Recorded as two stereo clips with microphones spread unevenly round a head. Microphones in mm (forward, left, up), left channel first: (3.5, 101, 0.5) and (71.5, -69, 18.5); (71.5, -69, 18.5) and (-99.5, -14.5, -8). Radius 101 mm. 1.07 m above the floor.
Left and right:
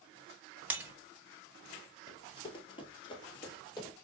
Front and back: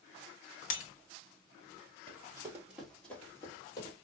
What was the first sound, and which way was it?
Breaking glass, 10° left.